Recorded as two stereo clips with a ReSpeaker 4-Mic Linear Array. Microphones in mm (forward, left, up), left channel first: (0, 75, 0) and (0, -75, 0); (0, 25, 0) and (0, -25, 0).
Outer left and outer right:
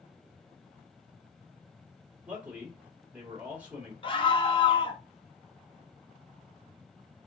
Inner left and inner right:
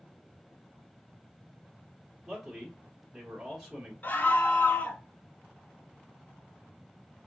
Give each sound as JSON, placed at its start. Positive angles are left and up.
{"t": 2.3, "sound": "a man speaking", "side_deg": -10, "distance_m": 1.3}
{"t": 4.0, "sound": "a scream", "side_deg": 35, "distance_m": 0.9}